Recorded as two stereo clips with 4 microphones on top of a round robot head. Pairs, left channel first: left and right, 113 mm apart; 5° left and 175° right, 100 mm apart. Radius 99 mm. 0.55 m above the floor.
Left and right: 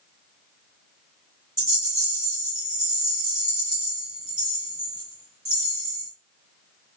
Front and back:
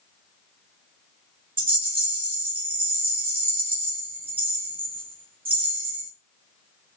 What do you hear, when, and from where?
1.6 s a rattle: 145° right, 1.9 m